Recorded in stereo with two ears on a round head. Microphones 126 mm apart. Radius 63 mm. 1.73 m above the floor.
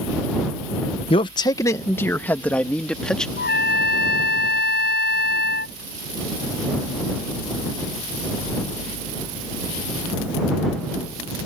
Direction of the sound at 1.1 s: 40° left (ahead or behind).